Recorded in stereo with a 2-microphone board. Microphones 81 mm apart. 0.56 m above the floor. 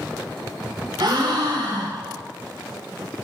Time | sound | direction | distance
1.0 | a gasp | 60° right (ahead or behind) | 2 m